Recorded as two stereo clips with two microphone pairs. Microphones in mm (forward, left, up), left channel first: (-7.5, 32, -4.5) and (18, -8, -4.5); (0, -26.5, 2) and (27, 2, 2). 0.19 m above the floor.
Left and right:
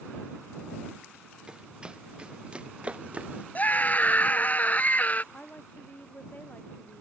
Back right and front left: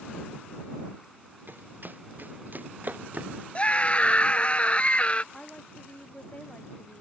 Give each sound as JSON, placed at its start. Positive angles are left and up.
{"t": 1.5, "sound": "running footsteps", "azimuth_deg": 15}
{"t": 3.5, "sound": "a scream", "azimuth_deg": 175}
{"t": 5.3, "sound": "a woman speaking", "azimuth_deg": 175}